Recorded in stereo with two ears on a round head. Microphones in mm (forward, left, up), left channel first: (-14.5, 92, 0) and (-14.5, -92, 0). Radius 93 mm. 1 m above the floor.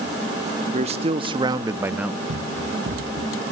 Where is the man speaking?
35° right (ahead or behind), 2.0 m; by 2.2 s centre (ahead or behind), 1.2 m.